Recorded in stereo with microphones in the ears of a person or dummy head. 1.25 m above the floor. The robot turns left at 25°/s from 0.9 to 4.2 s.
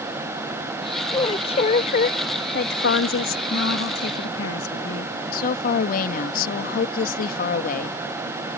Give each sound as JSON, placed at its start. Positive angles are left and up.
{"t": 1.1, "sound": "a woman speaking", "azimuth_deg": 150}
{"t": 3.5, "sound": "a woman speaking", "side_deg": 70}
{"t": 5.3, "sound": "a woman speaking", "side_deg": 50}